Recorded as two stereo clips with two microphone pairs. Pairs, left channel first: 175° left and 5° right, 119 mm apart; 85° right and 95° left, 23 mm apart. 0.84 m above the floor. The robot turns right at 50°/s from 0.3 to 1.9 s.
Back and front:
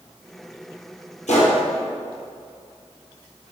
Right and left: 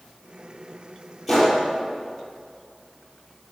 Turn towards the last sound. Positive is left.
turn(degrees=-145)